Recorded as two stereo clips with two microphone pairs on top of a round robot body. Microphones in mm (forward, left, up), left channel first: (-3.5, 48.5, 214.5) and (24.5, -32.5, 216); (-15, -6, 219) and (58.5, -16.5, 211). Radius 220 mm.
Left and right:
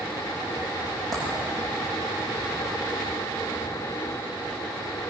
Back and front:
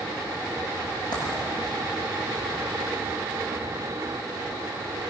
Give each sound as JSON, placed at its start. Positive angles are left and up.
{"t": 1.1, "sound": "a dropped coin", "azimuth_deg": -165, "distance_m": 9.5}